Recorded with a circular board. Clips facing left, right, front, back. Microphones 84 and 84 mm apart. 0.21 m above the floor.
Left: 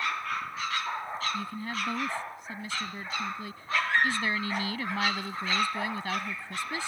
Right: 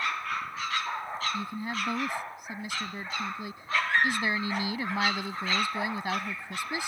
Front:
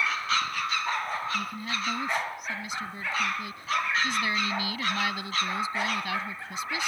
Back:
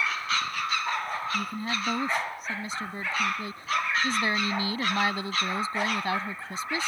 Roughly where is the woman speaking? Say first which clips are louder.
Right 1 dB, back 1 dB; behind right.